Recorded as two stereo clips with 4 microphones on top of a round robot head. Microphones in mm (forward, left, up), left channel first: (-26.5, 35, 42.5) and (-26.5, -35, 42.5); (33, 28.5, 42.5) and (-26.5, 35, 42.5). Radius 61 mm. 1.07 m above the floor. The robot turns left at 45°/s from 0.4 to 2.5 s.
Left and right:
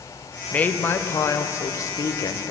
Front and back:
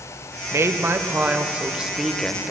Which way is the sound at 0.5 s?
155° left.